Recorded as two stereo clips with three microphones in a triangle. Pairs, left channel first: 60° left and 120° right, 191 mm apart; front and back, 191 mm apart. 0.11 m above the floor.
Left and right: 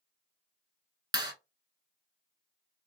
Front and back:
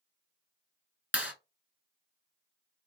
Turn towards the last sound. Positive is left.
turn(degrees=-115)